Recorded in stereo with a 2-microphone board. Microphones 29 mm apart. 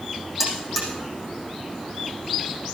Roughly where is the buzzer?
Centre.